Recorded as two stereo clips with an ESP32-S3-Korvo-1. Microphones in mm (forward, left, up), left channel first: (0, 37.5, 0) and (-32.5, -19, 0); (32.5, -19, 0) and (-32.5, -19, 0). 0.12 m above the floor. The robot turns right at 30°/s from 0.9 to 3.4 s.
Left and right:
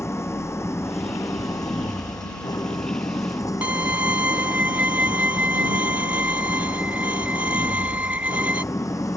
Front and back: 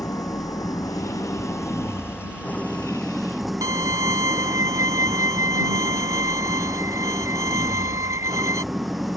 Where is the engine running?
20° left; by 9.2 s 95° left.